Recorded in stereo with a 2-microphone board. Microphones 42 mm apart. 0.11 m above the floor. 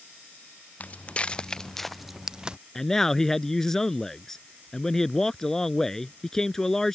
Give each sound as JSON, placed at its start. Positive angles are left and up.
{"t": 0.8, "sound": "footsteps", "side_deg": 35}
{"t": 2.8, "sound": "a man speaking", "side_deg": 10}